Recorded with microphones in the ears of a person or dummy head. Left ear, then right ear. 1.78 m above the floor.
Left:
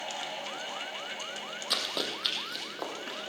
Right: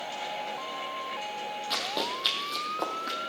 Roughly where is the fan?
Left.